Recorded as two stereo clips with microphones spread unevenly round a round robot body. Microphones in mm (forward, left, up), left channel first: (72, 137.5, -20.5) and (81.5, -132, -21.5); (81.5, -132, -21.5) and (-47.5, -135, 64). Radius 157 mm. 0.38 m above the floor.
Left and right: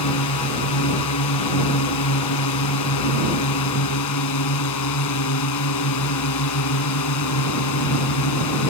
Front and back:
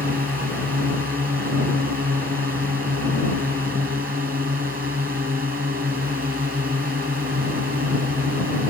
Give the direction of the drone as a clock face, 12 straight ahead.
8 o'clock.